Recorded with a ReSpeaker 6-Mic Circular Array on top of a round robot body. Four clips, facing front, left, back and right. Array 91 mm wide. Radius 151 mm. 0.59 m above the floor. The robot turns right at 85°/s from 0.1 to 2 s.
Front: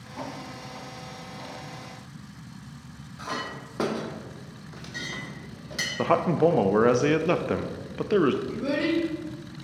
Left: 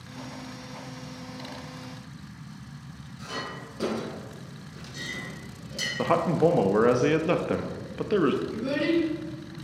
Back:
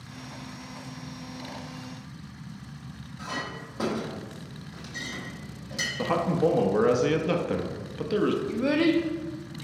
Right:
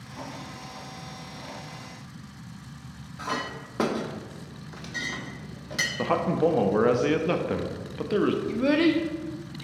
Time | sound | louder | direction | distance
3.2 | a clink | right 5 dB, front 2 dB | 60° right | 0.9 m
6.0 | a man speaking | left 2 dB, front 3 dB | 15° left | 0.6 m
8.5 | a child speaking | right 4 dB, back 3 dB | 120° right | 1.2 m